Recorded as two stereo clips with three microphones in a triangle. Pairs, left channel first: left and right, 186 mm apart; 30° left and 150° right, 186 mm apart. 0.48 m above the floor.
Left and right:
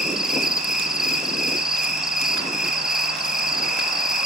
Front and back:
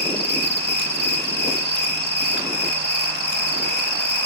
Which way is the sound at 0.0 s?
Straight ahead.